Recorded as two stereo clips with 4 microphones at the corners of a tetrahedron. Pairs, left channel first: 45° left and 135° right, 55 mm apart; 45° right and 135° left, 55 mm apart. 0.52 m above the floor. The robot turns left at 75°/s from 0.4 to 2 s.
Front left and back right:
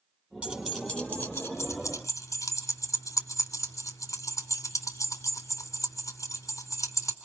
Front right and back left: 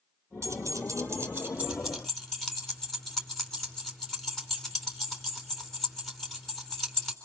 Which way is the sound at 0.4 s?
155° left.